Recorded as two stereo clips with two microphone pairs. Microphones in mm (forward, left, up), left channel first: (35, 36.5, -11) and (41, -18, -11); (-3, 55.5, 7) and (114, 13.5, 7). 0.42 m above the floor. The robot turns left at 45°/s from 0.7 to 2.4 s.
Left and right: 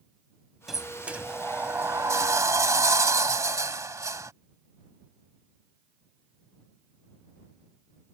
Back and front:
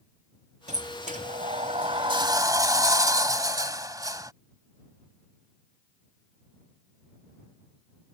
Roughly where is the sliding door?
Ahead.